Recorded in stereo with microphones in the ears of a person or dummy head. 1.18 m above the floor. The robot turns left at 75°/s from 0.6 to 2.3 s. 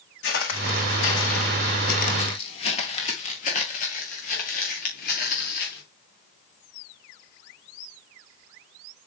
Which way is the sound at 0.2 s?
50° left (ahead or behind).